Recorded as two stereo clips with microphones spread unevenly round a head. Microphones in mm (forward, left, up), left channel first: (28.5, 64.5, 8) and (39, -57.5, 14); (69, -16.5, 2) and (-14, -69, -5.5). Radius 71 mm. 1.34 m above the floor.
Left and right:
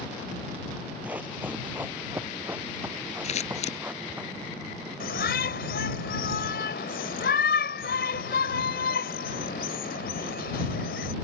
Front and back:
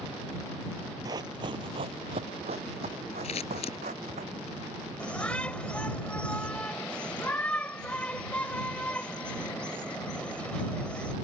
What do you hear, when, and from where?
1.1 s running footsteps: 150° right; by 4.2 s 165° right
3.2 s scissors: 65° left
5.0 s a shout: 115° left